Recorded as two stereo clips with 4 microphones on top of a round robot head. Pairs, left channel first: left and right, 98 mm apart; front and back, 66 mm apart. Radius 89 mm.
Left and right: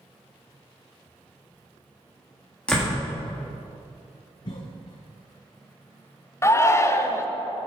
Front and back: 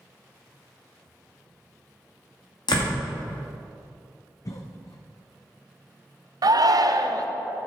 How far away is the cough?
About 0.6 m.